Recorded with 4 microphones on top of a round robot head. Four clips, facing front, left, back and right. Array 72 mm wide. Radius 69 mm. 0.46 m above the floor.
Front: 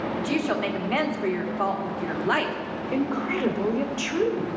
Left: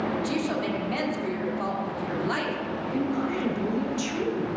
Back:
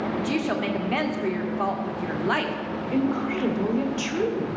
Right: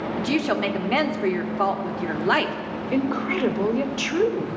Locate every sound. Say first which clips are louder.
0.2 s a woman speaking: right 4 dB, front 2 dB; 85° right, 1.7 m
2.9 s a woman speaking: right 5 dB, back 1 dB; 80° right, 1.9 m